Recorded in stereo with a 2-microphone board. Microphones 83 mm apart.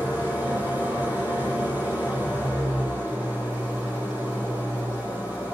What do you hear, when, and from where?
0.0 s an engine running: 20° right (ahead or behind), 9.5 m